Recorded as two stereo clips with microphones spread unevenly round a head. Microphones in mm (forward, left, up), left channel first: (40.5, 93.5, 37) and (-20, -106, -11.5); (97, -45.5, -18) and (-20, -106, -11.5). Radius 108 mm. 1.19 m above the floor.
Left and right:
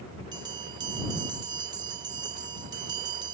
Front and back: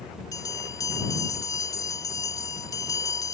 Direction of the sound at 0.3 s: 35° right.